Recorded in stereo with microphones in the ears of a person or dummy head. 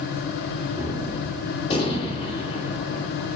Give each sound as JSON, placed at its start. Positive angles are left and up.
{"t": 0.7, "sound": "a gunshot", "side_deg": 35, "distance_m": 2.5}